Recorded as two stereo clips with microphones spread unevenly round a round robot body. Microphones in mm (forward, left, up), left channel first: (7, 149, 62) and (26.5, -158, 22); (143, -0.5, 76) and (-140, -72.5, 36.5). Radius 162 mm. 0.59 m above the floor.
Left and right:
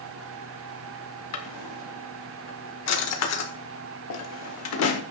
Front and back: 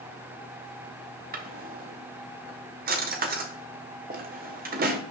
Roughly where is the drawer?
Behind left.